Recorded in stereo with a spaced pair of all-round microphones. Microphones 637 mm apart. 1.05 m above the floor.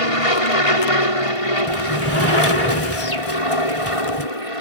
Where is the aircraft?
55° left (ahead or behind).